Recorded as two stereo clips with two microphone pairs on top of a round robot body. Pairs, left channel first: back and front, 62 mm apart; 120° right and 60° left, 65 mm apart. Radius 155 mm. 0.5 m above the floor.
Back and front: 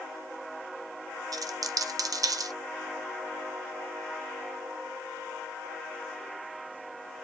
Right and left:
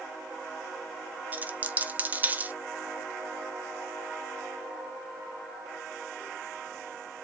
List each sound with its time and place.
1.3 s a dropped coin: 10° right, 0.7 m